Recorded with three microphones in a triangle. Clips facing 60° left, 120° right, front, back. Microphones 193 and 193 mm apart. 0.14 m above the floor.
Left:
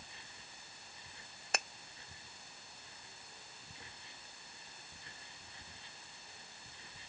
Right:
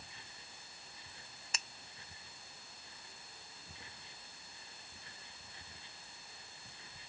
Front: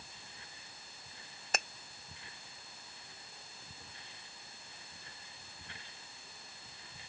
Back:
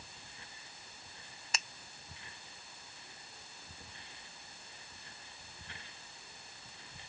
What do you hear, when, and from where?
1.5 s a finger snap: 35° left